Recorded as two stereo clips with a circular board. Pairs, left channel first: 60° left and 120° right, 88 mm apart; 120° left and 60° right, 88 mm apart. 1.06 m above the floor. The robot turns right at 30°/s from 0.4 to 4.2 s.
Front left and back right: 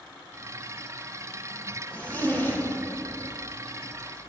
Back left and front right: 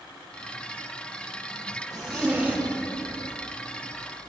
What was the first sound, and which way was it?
A zipper, 15° right.